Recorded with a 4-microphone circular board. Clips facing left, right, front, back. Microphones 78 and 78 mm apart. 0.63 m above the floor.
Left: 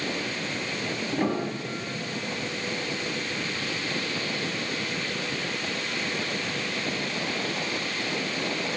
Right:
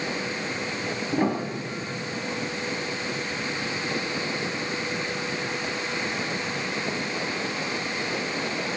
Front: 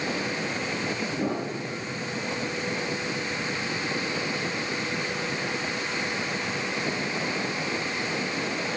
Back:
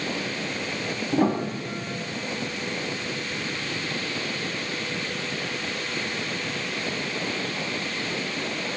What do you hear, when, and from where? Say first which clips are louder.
1.1 s a piano: right 2 dB, back 5 dB; 165° right, 3 m